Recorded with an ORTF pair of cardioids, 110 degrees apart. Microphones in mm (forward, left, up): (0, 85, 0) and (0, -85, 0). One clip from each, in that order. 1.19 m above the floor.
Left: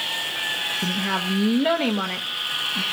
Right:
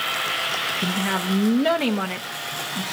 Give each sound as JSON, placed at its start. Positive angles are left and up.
{"t": 0.8, "sound": "a woman speaking", "azimuth_deg": -5, "distance_m": 0.8}